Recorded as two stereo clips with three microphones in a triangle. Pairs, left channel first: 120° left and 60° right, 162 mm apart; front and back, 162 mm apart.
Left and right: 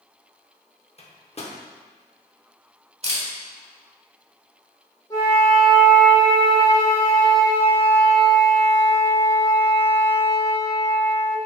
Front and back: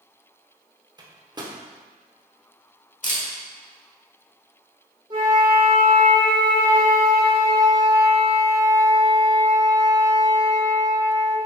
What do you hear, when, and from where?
1.0 s a microwave: 130° left, 0.8 m
3.0 s a camera shutter: 20° right, 1.0 m
5.1 s a flute: 165° left, 1.6 m